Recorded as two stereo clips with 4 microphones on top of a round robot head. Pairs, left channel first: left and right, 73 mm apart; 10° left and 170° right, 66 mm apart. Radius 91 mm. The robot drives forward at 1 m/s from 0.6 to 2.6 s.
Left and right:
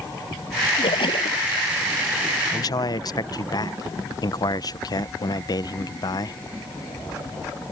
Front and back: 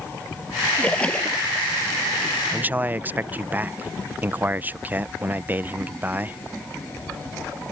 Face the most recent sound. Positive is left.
turn(degrees=125)